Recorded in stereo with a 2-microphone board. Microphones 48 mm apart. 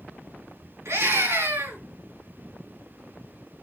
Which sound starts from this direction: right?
A scream, at 0.8 s.